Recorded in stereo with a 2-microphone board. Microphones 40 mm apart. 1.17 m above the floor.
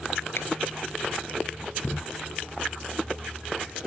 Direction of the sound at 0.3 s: 75° left (ahead or behind).